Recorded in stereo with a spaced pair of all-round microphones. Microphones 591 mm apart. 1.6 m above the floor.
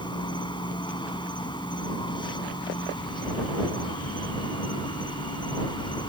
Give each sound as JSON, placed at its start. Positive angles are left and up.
{"t": 0.0, "sound": "an insect", "side_deg": 5}